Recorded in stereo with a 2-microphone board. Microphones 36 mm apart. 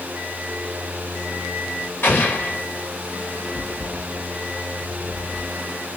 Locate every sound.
2.0 s an explosion: 60° left (ahead or behind), 2.5 m